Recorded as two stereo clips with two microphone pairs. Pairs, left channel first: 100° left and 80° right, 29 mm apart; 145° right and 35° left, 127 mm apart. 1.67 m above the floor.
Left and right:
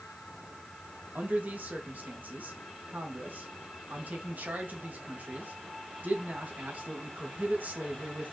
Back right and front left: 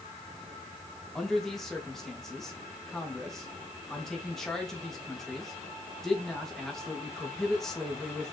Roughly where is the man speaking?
Ahead right.